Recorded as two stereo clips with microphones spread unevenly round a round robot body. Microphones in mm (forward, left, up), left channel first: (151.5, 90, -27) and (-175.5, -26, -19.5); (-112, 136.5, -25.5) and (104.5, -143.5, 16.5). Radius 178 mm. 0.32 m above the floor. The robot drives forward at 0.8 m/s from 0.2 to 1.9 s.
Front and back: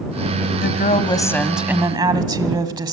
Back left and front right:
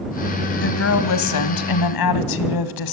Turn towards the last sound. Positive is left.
turn(degrees=120)